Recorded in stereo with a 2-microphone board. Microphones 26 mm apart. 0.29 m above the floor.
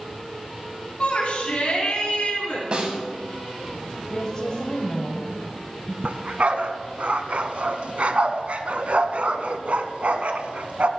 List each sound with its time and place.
1.0 s a shout: 55° left (ahead or behind), 2.5 m
2.7 s a snare drum: 45° right (ahead or behind), 1.8 m
4.1 s a woman speaking: 35° left (ahead or behind), 1.3 m
6.0 s a dog barking: 60° right (ahead or behind), 0.7 m